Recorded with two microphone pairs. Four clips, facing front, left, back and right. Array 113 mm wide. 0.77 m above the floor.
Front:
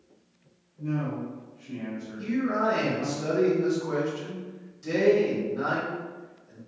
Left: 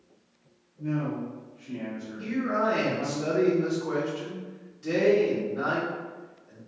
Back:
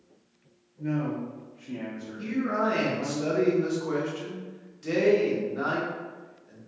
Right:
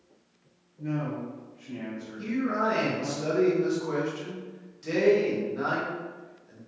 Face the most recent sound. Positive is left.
turn(degrees=-165)